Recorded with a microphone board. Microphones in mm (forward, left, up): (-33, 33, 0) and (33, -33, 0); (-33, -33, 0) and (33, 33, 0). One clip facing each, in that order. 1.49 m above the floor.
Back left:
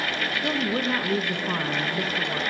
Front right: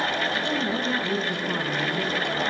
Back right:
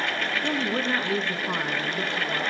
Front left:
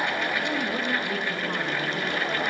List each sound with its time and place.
0.4 s a woman speaking: 155° left, 1.6 m